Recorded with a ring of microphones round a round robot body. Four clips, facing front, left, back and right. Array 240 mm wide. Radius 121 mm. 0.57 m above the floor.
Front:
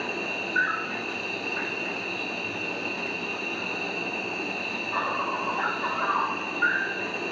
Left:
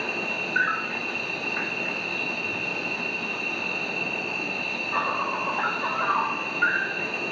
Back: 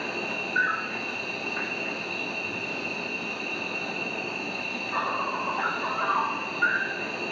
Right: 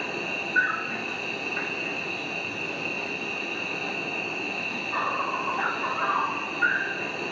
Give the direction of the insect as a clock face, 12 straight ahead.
9 o'clock.